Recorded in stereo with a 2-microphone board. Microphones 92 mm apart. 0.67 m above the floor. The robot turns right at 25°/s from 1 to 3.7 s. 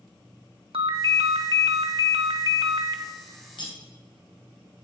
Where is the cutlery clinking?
65° left (ahead or behind), 2 m; by 3.8 s 60° left (ahead or behind), 2 m.